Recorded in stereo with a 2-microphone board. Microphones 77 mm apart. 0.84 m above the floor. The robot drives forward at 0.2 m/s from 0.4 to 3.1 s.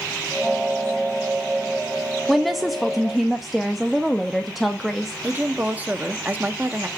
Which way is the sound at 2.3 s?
Centre (ahead or behind).